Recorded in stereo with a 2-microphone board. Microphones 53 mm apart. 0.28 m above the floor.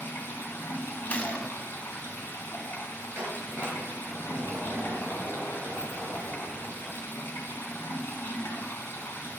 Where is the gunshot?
25° left (ahead or behind), 1.0 m.